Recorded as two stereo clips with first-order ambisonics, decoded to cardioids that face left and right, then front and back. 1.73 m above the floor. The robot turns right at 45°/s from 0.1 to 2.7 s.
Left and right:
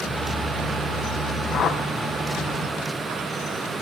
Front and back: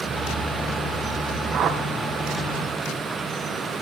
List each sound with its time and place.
1.5 s a whoosh: 135° left, 0.9 m; by 1.8 s 150° left, 0.9 m